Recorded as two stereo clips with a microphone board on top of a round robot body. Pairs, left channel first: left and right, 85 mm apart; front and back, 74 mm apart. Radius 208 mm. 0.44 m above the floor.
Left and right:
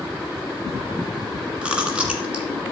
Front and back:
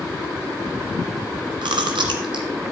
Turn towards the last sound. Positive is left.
turn(degrees=-170)